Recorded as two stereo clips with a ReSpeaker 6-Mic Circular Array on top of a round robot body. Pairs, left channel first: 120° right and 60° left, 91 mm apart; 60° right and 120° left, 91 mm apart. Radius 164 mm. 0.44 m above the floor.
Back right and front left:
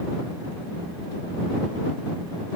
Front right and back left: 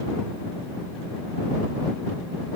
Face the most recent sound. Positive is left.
No sound to turn to.